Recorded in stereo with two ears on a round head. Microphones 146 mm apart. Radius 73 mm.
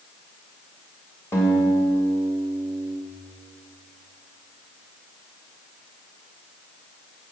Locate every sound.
1.3 s a guitar: 15° left (ahead or behind), 2 m